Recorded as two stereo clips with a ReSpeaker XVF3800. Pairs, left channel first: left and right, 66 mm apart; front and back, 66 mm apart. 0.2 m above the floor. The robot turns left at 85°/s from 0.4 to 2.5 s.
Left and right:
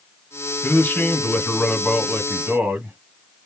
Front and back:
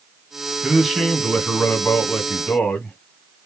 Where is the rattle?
I don't hear a rattle.